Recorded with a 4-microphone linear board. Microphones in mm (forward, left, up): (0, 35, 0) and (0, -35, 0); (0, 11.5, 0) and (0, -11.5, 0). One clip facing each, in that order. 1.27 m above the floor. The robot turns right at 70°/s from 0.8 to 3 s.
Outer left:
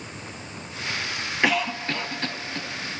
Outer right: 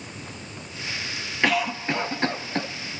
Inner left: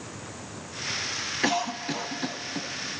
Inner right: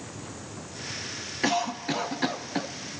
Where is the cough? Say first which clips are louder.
Outer right 1 dB, inner right 2 dB; 175° left, 0.6 m; by 2.7 s 100° right, 0.6 m.